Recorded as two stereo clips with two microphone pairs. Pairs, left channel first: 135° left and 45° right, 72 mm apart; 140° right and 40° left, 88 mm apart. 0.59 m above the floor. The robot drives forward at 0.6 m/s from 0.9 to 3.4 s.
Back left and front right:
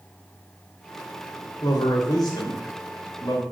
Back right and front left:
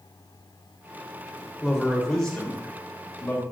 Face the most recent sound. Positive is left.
turn(degrees=145)